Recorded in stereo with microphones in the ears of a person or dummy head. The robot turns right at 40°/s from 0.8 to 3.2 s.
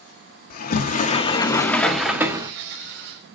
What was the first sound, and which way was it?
A sliding door, 135° left.